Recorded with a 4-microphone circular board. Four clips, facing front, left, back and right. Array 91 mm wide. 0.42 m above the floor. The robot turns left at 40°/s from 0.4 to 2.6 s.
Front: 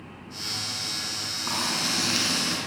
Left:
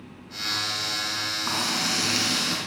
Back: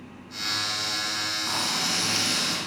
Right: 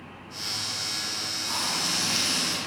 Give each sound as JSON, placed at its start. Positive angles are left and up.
{"t": 1.5, "sound": "frying", "azimuth_deg": 75, "distance_m": 5.0}